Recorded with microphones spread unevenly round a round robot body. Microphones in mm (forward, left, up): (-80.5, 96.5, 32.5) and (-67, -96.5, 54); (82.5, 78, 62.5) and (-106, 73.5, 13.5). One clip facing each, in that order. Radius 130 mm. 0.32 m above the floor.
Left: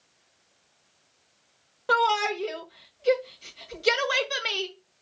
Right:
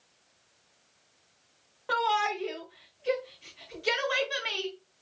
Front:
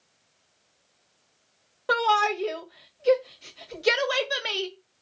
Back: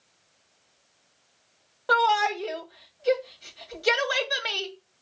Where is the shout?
70° left, 1.7 m.